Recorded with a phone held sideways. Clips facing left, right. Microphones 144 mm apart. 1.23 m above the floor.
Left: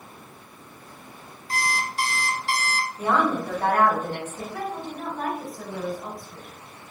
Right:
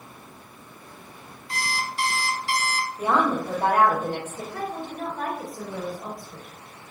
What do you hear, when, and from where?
1.5 s an alarm clock: 40° left (ahead or behind), 0.7 m
3.0 s a woman speaking: 10° right (ahead or behind), 1.6 m
4.5 s a woman speaking: 45° right (ahead or behind), 1.5 m